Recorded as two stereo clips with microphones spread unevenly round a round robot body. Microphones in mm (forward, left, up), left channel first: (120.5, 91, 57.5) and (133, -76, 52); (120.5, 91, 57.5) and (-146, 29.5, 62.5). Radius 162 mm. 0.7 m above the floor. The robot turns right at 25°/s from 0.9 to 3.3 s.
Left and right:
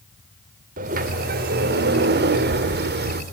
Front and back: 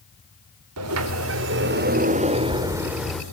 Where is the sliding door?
135° right, 1.8 m; by 3.2 s 75° right, 1.8 m.